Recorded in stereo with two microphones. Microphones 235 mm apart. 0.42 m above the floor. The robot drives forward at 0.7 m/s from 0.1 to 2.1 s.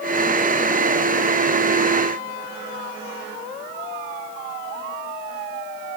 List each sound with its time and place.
Only background noise.